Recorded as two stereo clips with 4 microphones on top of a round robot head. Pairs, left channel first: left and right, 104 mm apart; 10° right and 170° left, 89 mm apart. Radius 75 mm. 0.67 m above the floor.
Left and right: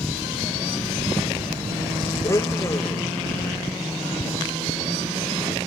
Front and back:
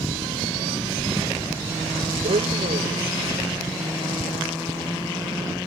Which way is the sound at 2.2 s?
155° left.